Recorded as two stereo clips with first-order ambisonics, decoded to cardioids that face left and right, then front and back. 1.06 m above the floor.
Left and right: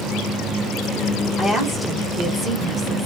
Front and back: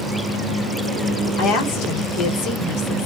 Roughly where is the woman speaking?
Ahead.